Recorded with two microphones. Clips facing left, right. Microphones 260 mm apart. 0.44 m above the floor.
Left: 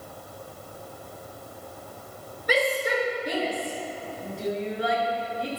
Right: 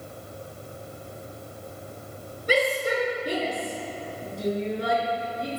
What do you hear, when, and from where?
2.5 s a shout: 30° right (ahead or behind), 6 m; by 5.6 s 50° right (ahead or behind), 6 m